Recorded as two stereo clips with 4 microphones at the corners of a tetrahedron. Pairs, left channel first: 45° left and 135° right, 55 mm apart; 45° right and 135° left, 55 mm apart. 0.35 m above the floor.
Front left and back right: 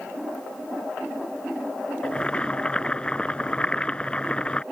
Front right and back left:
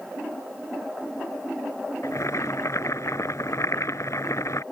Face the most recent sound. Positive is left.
turn(degrees=-25)